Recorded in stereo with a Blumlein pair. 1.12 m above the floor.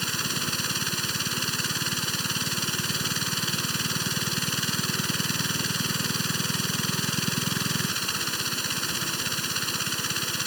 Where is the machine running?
Straight ahead.